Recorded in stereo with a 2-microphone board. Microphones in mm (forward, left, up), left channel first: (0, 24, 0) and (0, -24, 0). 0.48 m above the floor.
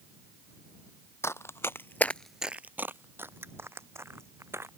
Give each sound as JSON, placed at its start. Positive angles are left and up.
{"t": 1.2, "sound": "running footsteps", "side_deg": 70}